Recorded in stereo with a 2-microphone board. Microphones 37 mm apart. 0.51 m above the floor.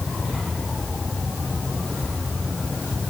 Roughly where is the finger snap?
I don't hear a finger snap.